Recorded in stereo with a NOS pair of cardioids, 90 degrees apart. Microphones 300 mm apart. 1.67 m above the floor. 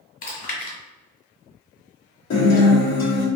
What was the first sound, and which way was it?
Chewing, 45° left.